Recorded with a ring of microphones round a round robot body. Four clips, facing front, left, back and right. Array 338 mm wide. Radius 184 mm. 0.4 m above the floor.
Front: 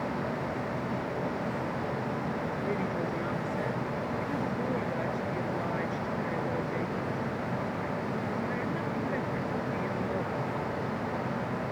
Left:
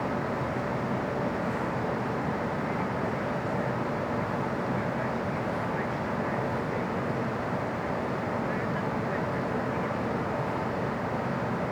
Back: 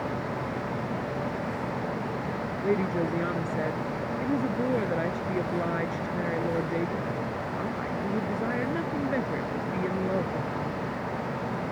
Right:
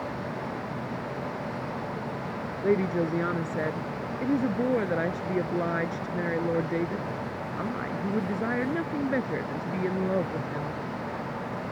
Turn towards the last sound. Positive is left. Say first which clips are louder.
# right 5 dB, back 8 dB
turn(degrees=-115)